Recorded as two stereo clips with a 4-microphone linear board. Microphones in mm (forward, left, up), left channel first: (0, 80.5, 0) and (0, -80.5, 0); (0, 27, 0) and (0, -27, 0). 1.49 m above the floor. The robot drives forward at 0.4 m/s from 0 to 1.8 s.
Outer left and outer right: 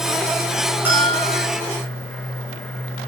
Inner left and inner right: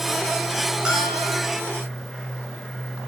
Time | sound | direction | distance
0.8 | a bell | 15° right (ahead or behind) | 8 m